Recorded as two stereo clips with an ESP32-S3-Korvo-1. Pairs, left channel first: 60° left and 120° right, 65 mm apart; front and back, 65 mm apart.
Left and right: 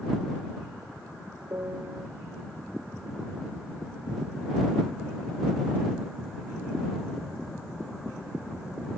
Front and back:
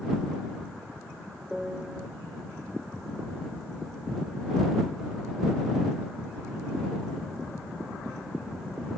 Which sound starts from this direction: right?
A piano, at 1.5 s.